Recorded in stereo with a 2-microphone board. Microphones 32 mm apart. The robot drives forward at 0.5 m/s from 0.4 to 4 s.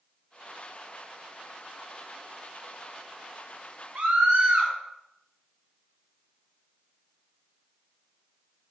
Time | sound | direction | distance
4.0 | a scream | 50° right (ahead or behind) | 3.5 m